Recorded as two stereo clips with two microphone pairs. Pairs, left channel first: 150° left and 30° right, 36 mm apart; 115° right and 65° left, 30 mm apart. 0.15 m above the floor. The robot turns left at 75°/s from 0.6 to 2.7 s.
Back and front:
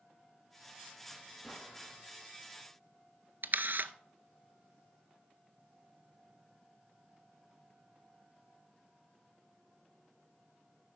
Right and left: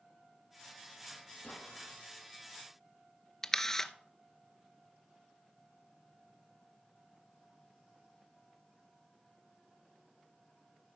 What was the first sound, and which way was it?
An explosion, 110° right.